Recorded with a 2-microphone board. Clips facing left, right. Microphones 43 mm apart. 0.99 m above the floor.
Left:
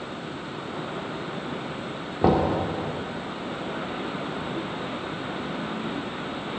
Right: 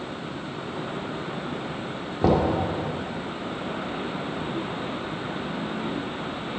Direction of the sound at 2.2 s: 10° left (ahead or behind).